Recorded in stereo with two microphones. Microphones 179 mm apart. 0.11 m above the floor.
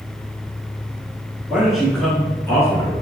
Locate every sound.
1.5 s a man speaking: 5° right (ahead or behind), 1.5 m; by 2.9 s 20° left (ahead or behind), 1.7 m